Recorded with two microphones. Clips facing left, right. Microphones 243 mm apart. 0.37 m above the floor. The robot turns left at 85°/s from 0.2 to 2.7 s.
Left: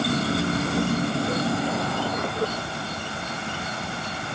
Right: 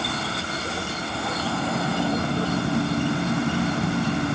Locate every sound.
0.0 s an insect: 135° left; by 4.4 s 80° right